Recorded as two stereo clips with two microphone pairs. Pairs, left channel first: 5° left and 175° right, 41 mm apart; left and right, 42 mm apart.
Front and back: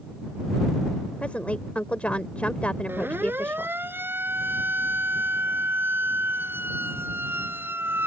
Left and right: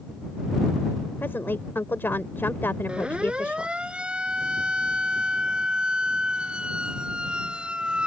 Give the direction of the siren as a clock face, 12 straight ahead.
5 o'clock.